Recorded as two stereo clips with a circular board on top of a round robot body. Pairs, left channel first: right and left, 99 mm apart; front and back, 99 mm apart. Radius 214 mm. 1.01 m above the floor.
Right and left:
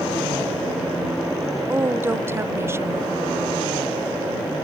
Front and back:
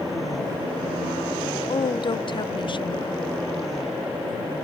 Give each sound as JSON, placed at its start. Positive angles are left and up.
{"t": 1.7, "sound": "a woman speaking", "azimuth_deg": 25}